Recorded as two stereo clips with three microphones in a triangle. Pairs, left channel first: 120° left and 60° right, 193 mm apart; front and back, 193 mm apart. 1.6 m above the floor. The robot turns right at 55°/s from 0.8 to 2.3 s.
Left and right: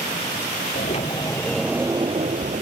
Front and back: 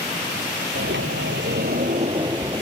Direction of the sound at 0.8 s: 165° left.